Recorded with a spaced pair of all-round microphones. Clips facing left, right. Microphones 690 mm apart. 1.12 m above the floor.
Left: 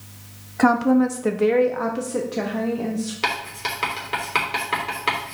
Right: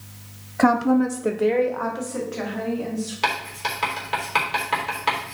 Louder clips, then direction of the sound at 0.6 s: Left 1 dB; 10° right (ahead or behind).